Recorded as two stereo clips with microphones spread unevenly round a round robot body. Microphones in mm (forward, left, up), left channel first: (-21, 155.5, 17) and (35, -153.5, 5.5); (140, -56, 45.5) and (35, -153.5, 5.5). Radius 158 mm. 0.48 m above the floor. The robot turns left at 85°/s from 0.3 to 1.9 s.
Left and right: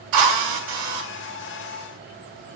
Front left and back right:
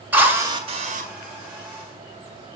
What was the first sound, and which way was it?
A drill, 65° right.